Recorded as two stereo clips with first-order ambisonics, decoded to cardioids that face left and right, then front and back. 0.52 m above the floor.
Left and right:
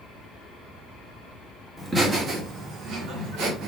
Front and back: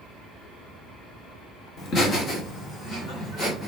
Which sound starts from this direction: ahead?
Laughter, at 1.8 s.